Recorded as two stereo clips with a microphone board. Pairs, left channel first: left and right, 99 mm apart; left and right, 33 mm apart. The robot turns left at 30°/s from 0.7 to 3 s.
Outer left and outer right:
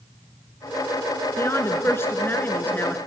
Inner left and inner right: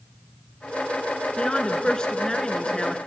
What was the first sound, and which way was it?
A woman speaking, 25° left (ahead or behind).